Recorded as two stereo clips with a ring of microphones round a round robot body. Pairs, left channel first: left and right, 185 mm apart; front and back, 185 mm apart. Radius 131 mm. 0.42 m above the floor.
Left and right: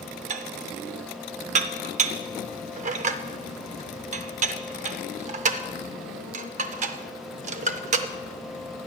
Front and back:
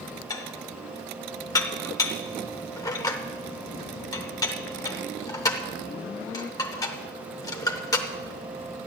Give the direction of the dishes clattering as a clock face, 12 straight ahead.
2 o'clock.